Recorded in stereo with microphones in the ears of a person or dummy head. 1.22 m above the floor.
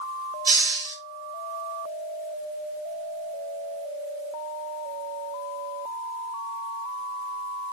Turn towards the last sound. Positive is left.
turn(degrees=-15)  # may be behind; listen again after turning